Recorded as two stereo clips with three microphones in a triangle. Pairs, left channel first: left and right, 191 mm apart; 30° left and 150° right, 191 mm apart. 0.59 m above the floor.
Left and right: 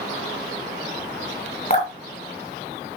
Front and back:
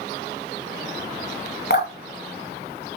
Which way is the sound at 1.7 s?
45° left.